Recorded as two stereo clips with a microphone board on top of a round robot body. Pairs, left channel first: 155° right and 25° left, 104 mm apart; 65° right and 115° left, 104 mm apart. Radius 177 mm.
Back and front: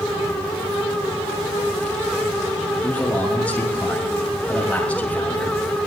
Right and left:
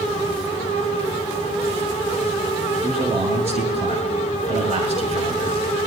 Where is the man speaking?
125° left, 7.5 m.